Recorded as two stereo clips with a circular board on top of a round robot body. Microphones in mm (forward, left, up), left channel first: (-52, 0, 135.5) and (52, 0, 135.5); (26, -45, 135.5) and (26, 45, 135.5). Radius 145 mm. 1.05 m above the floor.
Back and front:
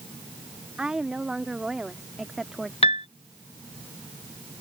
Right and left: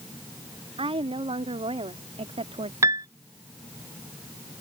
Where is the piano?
150° left.